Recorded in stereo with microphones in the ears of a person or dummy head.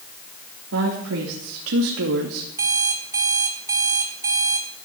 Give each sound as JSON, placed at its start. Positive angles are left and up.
{"t": 0.7, "sound": "a woman speaking", "side_deg": -85, "distance_m": 3.0}
{"t": 2.6, "sound": "an alarm clock", "side_deg": -15, "distance_m": 1.8}